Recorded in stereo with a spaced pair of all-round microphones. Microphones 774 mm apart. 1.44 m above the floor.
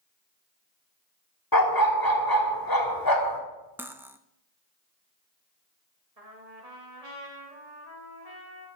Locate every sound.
1.5 s a dog barking: 25° left (ahead or behind), 1.4 m
3.8 s cutlery clinking: 5° right (ahead or behind), 0.6 m
6.2 s a trumpet: 50° right (ahead or behind), 2.0 m